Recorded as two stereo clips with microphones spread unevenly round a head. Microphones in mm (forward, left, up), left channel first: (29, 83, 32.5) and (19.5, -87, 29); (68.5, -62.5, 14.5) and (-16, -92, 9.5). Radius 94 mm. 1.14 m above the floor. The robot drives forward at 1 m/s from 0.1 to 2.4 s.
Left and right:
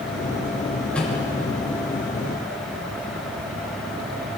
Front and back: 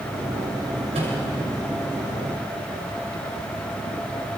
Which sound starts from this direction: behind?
A microwave, at 0.9 s.